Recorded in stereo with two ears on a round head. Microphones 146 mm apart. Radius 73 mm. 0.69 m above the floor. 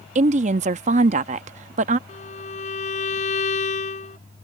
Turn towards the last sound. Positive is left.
turn(degrees=45)  # may be behind; listen again after turning